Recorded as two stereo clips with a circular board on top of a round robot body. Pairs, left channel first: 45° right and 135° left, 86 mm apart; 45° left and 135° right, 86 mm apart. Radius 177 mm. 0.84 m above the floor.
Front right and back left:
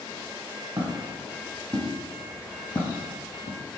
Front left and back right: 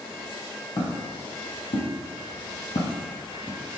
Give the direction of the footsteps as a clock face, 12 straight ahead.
9 o'clock.